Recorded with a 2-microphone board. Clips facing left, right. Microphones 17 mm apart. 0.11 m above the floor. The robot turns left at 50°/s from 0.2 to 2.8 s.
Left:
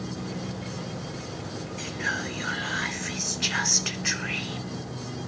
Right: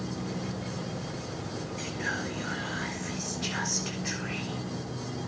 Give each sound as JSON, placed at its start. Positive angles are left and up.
{"t": 1.8, "sound": "whispering", "azimuth_deg": 160, "distance_m": 1.8}